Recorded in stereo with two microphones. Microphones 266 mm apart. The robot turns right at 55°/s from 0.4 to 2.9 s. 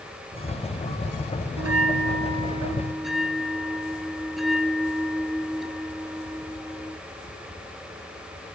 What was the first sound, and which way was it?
A bell, 75° right.